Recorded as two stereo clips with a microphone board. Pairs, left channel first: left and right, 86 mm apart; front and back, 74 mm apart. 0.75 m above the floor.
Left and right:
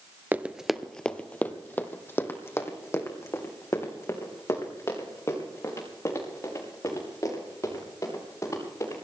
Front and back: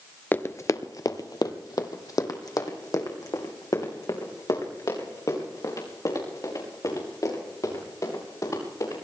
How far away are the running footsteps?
About 0.8 m.